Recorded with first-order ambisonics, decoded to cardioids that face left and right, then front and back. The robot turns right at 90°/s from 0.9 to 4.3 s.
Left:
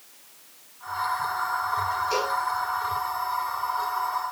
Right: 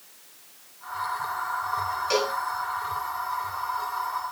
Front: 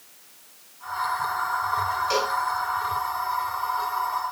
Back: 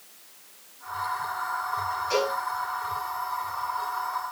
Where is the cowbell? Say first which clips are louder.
Right 4 dB, back 1 dB; 55° right, 4 m; by 2.4 s 30° right, 4 m.